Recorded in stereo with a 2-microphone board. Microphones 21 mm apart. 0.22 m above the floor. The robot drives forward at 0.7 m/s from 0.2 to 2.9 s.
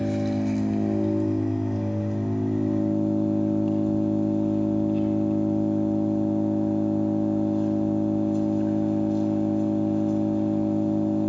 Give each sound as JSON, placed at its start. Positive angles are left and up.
{"t": 0.0, "sound": "an engine running", "side_deg": 5, "distance_m": 2.5}